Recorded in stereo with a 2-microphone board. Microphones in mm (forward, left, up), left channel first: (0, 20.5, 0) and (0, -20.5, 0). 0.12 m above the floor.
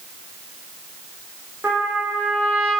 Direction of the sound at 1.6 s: 60° right (ahead or behind).